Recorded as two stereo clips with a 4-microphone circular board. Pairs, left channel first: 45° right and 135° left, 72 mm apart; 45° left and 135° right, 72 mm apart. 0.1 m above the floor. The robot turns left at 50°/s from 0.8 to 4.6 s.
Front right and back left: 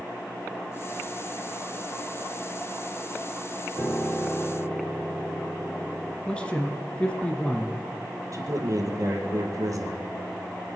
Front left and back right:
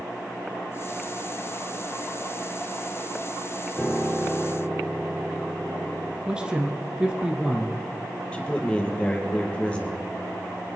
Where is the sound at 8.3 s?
115° left, 2.5 m.